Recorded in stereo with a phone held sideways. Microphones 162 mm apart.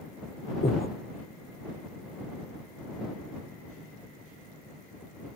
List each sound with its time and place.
0.6 s breathing: 70° left (ahead or behind)